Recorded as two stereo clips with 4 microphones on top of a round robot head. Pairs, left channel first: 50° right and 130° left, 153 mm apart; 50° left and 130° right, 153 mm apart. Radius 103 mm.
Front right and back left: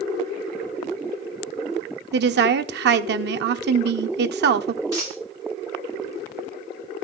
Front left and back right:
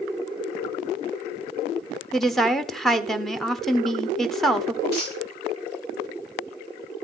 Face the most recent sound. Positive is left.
turn(degrees=60)